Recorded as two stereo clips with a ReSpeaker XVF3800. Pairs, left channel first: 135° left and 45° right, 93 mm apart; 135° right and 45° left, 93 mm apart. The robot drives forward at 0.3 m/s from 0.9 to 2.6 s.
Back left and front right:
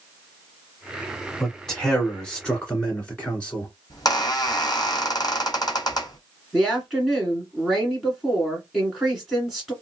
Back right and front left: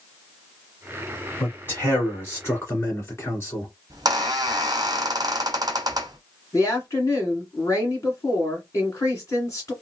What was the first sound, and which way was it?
A man speaking, 145° right.